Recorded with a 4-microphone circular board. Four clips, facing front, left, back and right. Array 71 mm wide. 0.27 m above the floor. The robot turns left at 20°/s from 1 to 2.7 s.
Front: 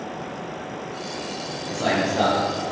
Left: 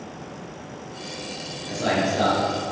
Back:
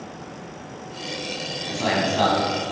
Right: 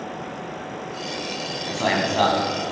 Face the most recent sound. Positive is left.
turn(degrees=-115)